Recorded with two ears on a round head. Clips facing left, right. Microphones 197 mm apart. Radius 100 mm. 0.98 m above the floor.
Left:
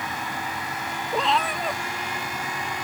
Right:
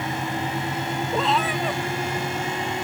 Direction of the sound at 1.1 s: Centre (ahead or behind).